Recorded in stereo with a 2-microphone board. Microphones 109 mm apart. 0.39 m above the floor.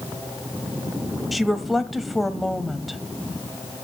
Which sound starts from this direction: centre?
A woman speaking, at 1.3 s.